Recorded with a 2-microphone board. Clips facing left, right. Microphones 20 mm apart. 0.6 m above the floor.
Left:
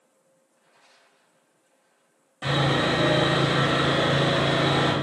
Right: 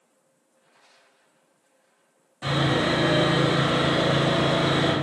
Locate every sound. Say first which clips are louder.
2.4 s sawing: even; 50° left (ahead or behind), 1.7 m